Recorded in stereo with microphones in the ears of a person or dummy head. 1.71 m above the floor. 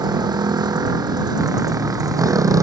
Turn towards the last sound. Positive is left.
turn(degrees=-10)  # may be behind; listen again after turning